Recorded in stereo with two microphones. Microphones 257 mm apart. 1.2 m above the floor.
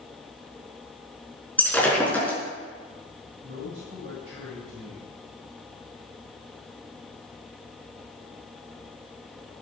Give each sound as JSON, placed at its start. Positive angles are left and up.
{"t": 1.6, "sound": "breaking glass", "side_deg": 5, "distance_m": 4.5}
{"t": 3.4, "sound": "a man speaking", "side_deg": -55, "distance_m": 7.0}